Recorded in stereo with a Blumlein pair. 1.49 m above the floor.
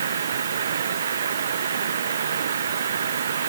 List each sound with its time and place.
0.0 s running water: 65° right